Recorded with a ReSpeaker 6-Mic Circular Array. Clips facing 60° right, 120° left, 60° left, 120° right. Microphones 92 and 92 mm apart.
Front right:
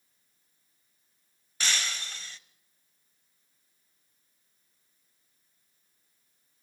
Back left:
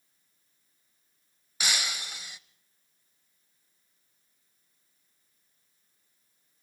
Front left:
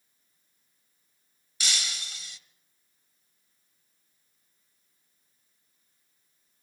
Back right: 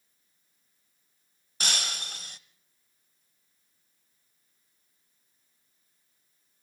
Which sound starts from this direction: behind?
Breaking glass, at 1.6 s.